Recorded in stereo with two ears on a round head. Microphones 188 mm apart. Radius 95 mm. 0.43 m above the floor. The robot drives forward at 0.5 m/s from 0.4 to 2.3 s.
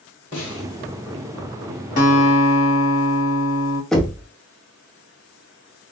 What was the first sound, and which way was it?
A snare drum, 60° left (ahead or behind).